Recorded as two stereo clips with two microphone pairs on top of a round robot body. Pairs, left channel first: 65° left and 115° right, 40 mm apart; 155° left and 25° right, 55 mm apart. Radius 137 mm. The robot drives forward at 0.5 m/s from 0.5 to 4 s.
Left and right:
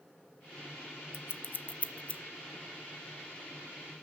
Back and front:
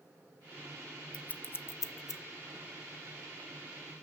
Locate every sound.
1.1 s scissors: 85° left, 0.5 m; by 2.2 s 135° left, 0.7 m